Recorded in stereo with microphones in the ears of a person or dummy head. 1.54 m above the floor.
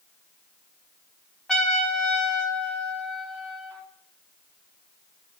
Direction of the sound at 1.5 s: Centre (ahead or behind).